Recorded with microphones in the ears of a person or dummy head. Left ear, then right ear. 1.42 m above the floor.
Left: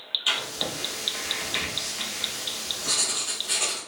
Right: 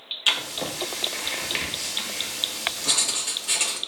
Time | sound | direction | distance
0.3 | writing | 20° right (ahead or behind) | 0.7 m